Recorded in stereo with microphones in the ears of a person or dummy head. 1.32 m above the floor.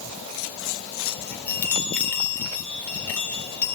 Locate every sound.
1.1 s a chime: 10° left (ahead or behind), 4 m